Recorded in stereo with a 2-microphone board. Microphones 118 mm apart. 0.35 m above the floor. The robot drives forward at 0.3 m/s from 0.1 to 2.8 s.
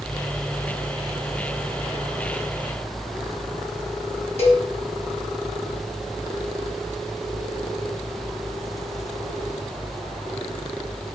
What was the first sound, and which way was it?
A cowbell, 60° left (ahead or behind).